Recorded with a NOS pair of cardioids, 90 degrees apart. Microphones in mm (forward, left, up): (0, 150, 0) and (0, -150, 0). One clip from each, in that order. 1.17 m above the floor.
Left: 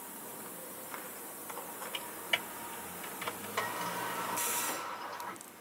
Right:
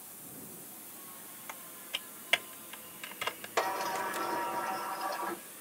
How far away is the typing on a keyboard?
About 1.1 m.